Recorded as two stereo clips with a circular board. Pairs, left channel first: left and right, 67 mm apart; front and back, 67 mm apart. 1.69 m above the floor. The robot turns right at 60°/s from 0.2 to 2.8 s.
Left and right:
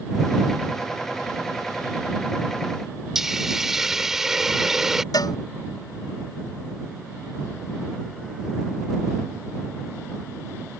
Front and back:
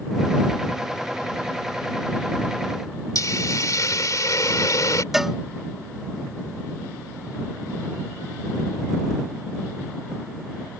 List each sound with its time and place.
3.1 s a hiss: 5° right
5.1 s a cowbell: 95° left